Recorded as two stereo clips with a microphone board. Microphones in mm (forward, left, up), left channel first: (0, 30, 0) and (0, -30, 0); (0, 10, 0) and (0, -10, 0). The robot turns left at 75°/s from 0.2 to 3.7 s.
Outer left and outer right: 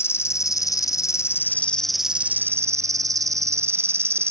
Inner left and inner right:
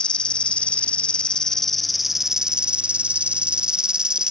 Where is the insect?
130° left; by 4.3 s 130° right.